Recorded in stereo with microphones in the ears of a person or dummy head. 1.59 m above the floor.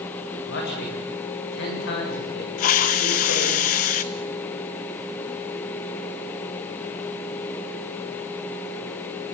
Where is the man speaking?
60° left (ahead or behind), 8 m.